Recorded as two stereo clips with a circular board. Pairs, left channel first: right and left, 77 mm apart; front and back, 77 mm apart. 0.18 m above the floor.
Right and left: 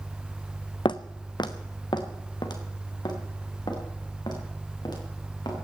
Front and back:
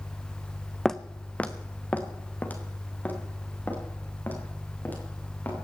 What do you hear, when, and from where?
0.8 s footsteps: 85° right, 0.7 m; by 5.7 s 65° right, 7 m